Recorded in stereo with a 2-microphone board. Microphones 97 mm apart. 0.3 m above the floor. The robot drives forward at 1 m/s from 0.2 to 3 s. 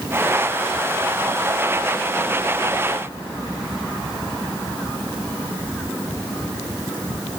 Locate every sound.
Only background noise.